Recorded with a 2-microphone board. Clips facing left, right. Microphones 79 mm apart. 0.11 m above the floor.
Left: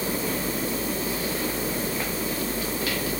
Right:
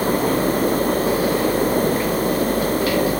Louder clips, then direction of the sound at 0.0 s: Right 10 dB; 60° right (ahead or behind).